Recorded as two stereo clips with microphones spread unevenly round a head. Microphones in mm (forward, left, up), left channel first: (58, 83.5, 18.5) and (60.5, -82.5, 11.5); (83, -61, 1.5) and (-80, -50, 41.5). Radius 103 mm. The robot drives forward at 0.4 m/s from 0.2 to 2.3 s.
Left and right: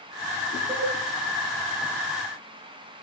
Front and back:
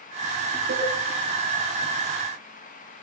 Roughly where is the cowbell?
Behind.